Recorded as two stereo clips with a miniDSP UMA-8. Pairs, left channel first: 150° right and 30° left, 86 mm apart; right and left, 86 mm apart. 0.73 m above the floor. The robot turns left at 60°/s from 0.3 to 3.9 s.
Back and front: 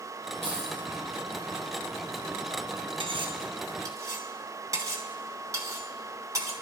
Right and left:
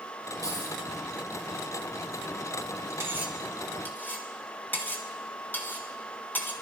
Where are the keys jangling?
140° left, 9.5 m; by 0.8 s 120° left, 9.5 m.